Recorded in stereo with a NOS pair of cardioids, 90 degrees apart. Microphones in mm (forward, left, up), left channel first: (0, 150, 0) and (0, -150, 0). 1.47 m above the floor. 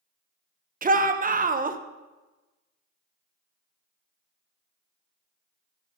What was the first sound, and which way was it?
A shout, 30° right.